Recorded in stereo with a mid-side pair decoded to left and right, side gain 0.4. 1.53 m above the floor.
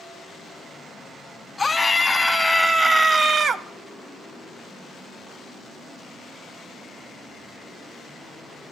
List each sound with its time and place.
1.6 s a scream: 30° left, 0.9 m; by 3.6 s 70° right, 0.7 m